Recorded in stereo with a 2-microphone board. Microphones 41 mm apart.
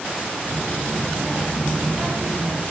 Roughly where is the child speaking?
Right.